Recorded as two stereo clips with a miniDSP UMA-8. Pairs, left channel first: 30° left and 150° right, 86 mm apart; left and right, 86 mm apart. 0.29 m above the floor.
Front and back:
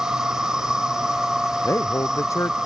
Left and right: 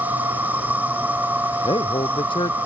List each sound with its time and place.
0.0 s an insect: 80° right
1.6 s a man speaking: 85° left